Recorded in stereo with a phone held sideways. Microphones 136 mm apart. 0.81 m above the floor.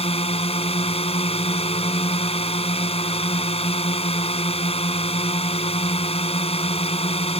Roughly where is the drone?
Left.